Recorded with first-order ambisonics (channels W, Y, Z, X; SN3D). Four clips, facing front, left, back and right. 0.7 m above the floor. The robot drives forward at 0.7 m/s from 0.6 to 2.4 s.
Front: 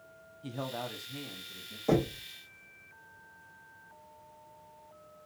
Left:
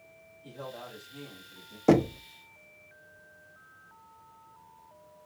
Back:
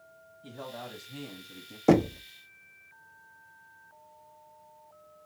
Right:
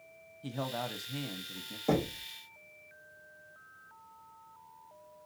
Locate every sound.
0.4 s a man speaking: 60° right, 0.9 m; by 1.8 s 125° right, 1.0 m
1.9 s knocking: 140° left, 0.5 m; by 2.2 s 155° left, 0.7 m